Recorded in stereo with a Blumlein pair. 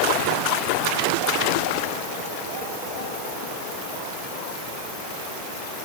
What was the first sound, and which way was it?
Only background noise.